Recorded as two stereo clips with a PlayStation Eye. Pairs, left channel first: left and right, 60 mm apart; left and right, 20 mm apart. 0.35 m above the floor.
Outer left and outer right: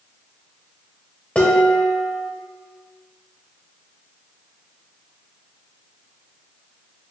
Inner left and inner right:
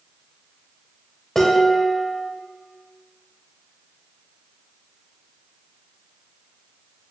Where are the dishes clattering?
20° left (ahead or behind), 0.8 m.